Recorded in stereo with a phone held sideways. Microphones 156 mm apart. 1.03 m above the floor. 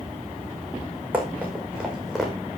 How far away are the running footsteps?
About 5.5 m.